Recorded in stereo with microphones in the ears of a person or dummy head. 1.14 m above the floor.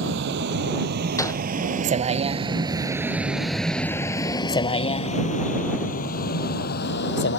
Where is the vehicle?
60° right (ahead or behind); by 7.4 s 60° left (ahead or behind).